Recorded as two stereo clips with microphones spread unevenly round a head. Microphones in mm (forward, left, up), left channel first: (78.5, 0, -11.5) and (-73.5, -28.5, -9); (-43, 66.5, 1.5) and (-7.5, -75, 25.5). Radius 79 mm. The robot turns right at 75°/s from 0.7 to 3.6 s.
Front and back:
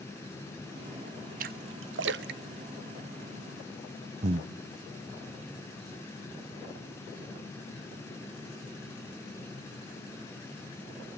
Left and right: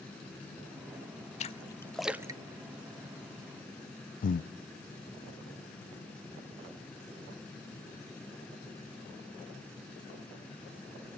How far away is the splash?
About 0.6 m.